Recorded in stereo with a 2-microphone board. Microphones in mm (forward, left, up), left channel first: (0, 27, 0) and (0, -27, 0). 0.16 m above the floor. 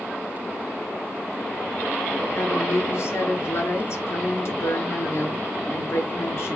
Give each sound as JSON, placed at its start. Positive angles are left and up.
{"t": 2.3, "sound": "a woman speaking", "side_deg": 60, "distance_m": 2.5}